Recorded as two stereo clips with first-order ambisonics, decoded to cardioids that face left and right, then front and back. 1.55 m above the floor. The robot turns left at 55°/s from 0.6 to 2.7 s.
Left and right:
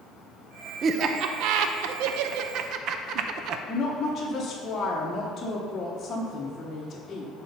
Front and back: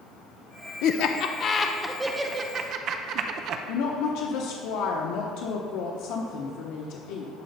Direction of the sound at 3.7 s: 10° left.